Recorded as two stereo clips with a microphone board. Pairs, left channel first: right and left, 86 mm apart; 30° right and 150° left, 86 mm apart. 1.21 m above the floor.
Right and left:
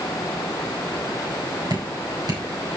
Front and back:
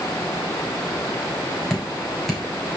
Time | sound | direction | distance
1.7 | dripping | 55° left | 4 m